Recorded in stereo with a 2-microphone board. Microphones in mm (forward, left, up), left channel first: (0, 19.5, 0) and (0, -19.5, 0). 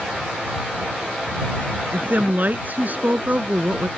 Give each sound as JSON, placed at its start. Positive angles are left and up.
{"t": 1.9, "sound": "a woman speaking", "side_deg": -50}